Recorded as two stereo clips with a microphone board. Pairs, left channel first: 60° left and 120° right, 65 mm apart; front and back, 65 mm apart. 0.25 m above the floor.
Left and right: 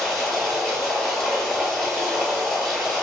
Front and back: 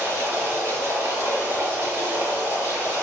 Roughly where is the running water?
Behind left.